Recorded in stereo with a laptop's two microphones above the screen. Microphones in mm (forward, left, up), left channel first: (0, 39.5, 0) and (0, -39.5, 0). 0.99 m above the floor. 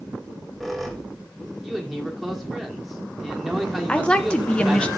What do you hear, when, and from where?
0.2 s a squeak: centre (ahead or behind), 1.4 m
1.6 s a man speaking: centre (ahead or behind), 1.9 m
3.9 s a woman speaking: 15° left (ahead or behind), 0.5 m